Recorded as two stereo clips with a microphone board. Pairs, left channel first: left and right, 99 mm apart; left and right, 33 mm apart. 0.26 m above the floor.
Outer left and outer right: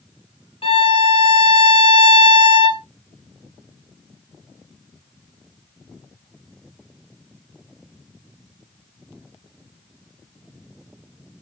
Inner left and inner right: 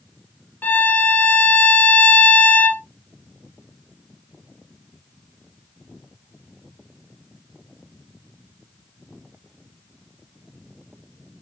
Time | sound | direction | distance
0.6 | a violin | 75° left (ahead or behind) | 0.8 m